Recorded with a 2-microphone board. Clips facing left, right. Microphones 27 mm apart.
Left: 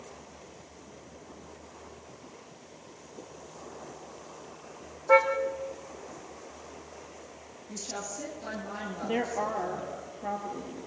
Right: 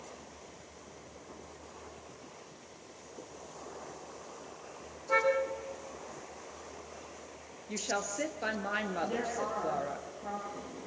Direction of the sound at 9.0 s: 40° left (ahead or behind).